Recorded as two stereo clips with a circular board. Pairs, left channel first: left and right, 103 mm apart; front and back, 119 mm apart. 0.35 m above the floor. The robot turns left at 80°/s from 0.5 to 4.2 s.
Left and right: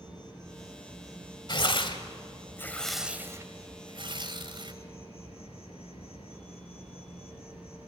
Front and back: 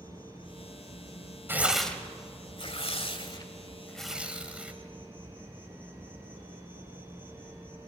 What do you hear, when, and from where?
0.0 s an insect: 40° left, 6 m; by 7.9 s 105° left, 6 m
1.5 s tearing paper: 115° left, 1.9 m; by 4.7 s 100° right, 1.9 m